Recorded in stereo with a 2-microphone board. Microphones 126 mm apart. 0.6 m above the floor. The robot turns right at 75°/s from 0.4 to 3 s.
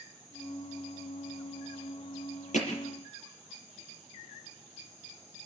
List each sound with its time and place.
2.5 s hammering: 70° left (ahead or behind), 7 m; by 2.8 s 90° left, 7 m